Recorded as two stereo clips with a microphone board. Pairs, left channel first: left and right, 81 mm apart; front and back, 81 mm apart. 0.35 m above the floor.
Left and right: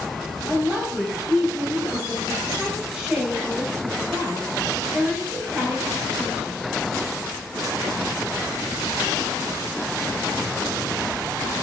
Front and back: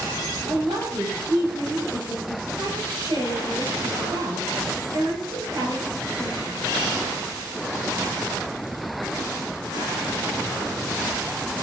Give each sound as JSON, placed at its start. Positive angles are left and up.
{"t": 0.5, "sound": "a woman speaking", "azimuth_deg": -170, "distance_m": 8.0}